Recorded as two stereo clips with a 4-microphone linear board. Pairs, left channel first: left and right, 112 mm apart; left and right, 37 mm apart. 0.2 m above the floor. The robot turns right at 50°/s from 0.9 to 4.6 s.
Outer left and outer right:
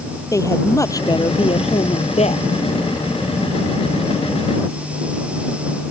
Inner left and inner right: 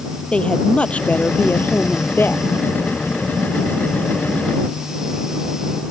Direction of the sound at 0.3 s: 30° left.